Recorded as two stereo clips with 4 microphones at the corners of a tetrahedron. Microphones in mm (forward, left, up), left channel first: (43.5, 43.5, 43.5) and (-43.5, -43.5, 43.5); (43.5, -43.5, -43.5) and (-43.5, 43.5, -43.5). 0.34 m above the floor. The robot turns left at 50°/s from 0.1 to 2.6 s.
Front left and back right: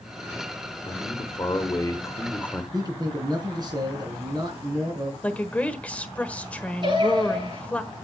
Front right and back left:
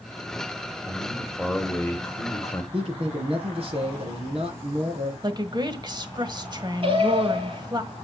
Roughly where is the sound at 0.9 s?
Ahead left.